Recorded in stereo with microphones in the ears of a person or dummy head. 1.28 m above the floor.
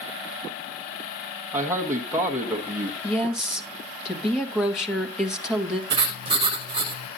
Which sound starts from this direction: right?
Writing, at 5.9 s.